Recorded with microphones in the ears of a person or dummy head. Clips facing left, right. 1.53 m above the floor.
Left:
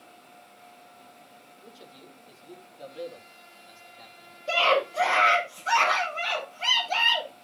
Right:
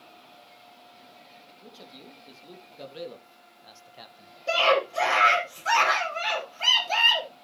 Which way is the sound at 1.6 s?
85° right.